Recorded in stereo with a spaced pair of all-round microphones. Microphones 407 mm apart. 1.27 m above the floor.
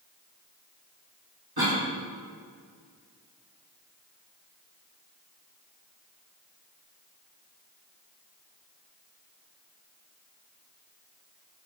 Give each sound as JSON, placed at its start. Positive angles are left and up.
{"t": 1.6, "sound": "a cough", "side_deg": -65, "distance_m": 1.6}